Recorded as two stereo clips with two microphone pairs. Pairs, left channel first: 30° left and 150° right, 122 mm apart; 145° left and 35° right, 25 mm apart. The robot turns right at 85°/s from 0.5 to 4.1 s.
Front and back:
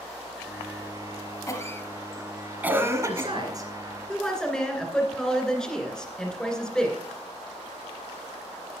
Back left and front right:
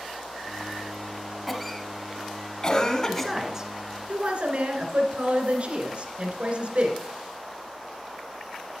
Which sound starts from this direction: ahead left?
A cough, at 1.5 s.